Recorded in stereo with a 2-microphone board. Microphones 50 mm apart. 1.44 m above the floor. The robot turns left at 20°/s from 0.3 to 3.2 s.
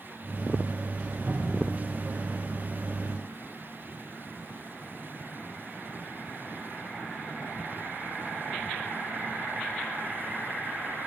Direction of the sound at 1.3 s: 40° right (ahead or behind).